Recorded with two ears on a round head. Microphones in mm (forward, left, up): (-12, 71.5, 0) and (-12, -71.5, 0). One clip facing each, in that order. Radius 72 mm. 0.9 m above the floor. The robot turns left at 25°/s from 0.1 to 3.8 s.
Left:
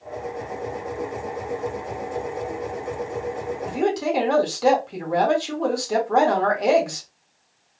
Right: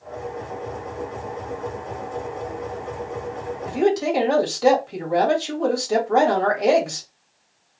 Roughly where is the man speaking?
Centre.